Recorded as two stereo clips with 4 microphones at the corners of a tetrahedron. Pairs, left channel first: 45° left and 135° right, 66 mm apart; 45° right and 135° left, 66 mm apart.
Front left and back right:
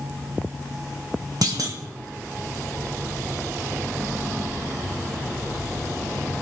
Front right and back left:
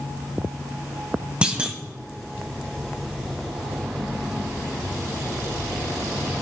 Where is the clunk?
155° right, 1.7 m.